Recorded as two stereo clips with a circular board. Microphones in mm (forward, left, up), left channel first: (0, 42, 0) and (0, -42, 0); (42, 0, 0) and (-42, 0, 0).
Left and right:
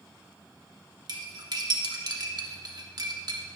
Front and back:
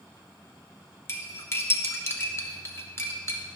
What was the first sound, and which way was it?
Cutlery clinking, 55° right.